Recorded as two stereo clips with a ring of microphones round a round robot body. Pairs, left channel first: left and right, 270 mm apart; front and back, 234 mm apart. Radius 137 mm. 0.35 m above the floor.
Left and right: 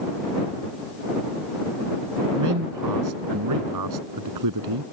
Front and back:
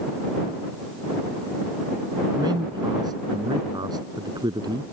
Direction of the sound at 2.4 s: 105° right.